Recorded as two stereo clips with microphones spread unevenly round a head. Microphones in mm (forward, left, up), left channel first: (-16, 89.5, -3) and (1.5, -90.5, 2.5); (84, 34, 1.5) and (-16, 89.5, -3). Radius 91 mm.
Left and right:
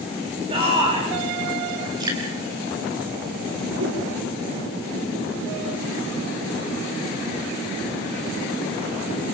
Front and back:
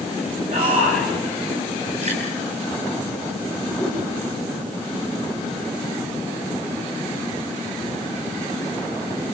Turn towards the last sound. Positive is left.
turn(degrees=-105)